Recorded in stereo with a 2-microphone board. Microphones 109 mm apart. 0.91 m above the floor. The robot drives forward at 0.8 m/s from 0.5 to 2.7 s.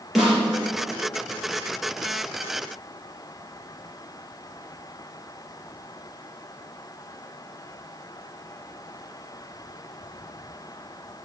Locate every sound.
0.1 s a snare drum: centre (ahead or behind), 4.5 m